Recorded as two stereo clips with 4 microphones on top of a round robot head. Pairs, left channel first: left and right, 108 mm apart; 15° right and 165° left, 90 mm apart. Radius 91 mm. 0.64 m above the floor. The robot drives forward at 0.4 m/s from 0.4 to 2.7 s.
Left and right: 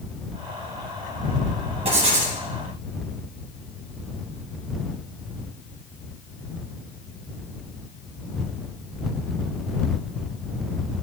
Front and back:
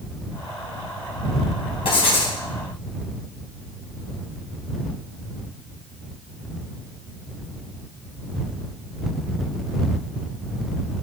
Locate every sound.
1.9 s writing: 50° right, 2.5 m; by 2.4 s 55° right, 2.5 m